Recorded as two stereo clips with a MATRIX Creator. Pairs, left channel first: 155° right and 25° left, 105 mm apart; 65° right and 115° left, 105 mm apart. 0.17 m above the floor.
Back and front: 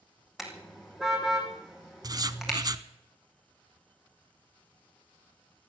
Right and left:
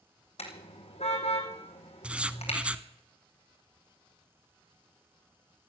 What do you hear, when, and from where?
0.4 s a car horn: 65° right, 3.5 m
2.0 s writing: 40° left, 0.7 m